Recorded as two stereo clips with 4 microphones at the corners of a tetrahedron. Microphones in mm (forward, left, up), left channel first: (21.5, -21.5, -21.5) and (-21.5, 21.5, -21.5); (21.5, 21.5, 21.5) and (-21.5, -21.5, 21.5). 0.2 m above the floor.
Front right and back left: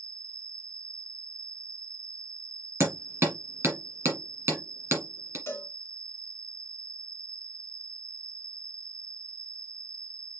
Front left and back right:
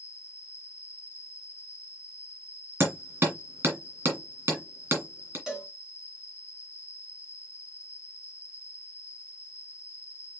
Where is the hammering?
Straight behind, 2.5 m.